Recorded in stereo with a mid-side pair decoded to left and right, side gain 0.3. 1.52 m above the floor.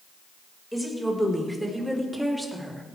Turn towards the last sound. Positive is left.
turn(degrees=-15)